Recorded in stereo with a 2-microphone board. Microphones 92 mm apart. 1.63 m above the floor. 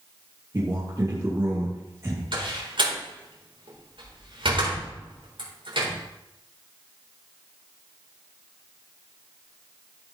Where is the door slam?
70° right (ahead or behind), 4 m.